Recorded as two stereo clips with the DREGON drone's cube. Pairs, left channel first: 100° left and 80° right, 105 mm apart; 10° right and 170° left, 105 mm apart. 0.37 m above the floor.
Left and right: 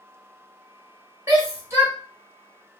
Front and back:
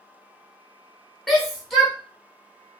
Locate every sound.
1.3 s a shout: 95° right, 1.0 m